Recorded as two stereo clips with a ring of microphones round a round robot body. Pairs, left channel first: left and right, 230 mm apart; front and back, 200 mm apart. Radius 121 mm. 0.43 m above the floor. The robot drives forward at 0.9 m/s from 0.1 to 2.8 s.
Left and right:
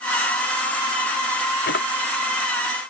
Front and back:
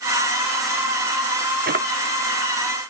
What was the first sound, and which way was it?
A drawer, 140° left.